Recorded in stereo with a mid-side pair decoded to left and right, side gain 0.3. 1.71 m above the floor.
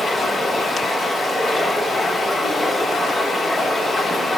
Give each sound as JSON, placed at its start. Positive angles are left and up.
{"t": 0.0, "sound": "running water", "azimuth_deg": 65, "distance_m": 3.5}